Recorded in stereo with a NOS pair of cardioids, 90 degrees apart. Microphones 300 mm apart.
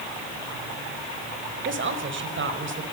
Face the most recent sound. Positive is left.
turn(degrees=-40)